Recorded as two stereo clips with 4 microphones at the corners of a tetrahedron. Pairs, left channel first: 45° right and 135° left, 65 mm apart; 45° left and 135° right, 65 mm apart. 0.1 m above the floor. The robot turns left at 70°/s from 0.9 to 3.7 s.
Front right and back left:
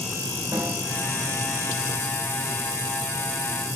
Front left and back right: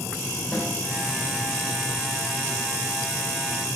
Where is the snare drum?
135° left, 4.5 m.